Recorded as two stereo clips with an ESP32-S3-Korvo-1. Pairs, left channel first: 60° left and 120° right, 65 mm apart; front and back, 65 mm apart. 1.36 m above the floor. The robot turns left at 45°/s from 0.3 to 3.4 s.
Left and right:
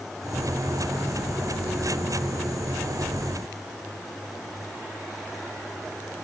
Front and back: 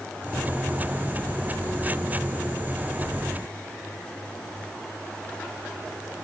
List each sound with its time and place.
Only background noise.